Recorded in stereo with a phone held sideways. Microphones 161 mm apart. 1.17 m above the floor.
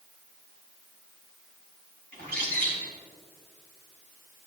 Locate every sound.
2.1 s a bird: 70° right (ahead or behind), 3.5 m